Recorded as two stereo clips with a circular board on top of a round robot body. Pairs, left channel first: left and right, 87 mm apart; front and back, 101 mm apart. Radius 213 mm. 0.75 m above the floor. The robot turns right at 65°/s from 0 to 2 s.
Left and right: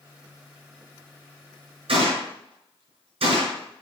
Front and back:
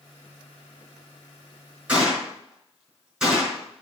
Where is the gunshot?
105° right, 3.5 m; by 3.8 s 100° right, 3.5 m.